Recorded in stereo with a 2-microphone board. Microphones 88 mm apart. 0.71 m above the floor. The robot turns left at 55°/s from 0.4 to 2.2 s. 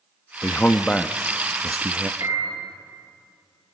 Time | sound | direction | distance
0.4 | a man speaking | 50° left | 0.5 m
2.2 | a piano | 40° right (ahead or behind) | 8.5 m